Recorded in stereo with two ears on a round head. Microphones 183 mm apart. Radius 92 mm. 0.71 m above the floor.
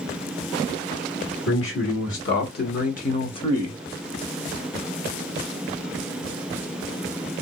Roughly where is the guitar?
I don't hear a guitar.